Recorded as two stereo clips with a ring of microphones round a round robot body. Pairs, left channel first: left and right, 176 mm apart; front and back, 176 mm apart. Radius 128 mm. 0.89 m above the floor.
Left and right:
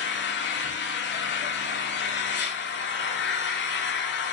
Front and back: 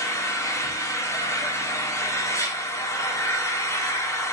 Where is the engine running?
75° left, 1.7 m.